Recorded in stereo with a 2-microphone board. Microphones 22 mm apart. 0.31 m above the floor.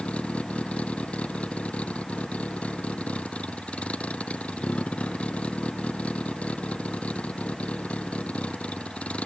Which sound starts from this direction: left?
A vehicle, at 0.0 s.